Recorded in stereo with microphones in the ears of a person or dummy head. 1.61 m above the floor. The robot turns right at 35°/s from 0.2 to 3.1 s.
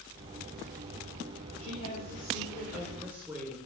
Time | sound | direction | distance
1.6 | a woman speaking | 135° left | 5 m